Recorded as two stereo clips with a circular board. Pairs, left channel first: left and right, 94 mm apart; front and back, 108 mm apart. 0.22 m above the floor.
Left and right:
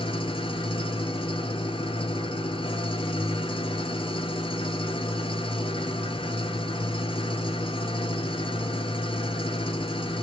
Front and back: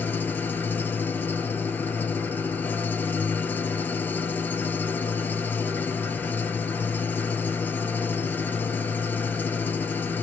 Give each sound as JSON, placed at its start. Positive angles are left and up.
{"t": 0.0, "sound": "an engine running", "azimuth_deg": 70, "distance_m": 1.1}